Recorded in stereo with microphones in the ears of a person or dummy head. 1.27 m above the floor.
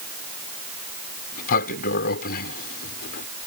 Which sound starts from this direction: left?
A sliding door, at 1.3 s.